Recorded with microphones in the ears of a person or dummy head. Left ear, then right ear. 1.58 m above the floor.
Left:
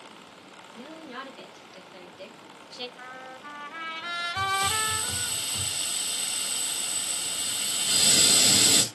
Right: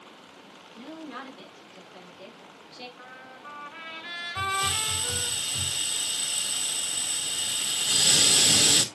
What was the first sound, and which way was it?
A woman speaking, 35° left (ahead or behind).